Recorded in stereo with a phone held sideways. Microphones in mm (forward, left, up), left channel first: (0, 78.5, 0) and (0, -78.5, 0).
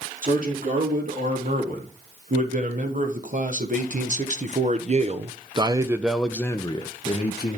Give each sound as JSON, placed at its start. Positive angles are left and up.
{"t": 0.2, "sound": "a man speaking", "side_deg": -60, "distance_m": 3.5}